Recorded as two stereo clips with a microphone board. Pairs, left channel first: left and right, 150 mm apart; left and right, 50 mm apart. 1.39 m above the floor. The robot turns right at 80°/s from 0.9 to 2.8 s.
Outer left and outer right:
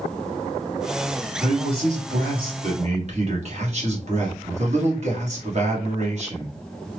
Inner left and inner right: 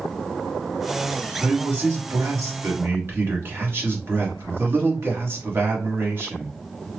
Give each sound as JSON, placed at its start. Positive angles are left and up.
{"t": 1.4, "sound": "a man speaking", "azimuth_deg": -160, "distance_m": 1.3}